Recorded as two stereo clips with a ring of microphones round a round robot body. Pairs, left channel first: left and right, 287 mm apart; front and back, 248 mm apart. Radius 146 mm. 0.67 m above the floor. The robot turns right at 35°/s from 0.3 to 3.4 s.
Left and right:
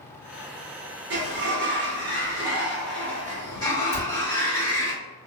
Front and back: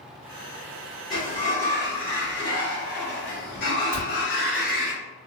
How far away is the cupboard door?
About 1.8 m.